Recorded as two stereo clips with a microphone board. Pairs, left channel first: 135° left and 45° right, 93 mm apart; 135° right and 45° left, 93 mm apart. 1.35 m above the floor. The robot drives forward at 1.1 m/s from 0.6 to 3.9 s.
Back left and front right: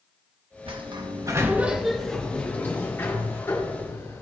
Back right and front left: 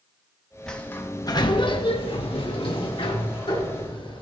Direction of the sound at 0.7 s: 55° right.